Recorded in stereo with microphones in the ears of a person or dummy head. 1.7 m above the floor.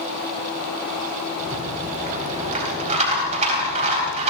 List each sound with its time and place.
1.4 s a rattle: 35° right (ahead or behind), 4 m